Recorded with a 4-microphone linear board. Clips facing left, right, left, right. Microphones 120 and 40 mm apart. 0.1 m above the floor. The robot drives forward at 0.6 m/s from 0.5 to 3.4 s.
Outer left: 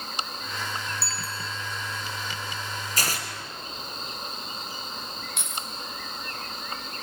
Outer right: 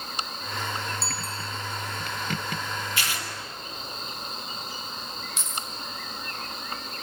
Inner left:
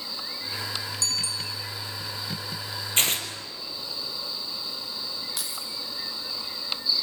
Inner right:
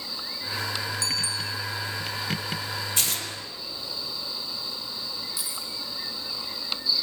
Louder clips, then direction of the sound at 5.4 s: Outer right 1 dB, even; 60° left (ahead or behind).